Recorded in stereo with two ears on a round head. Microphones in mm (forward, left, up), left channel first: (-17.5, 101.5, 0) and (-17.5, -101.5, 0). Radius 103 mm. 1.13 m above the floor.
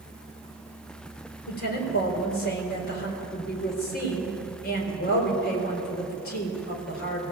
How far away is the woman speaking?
About 4 m.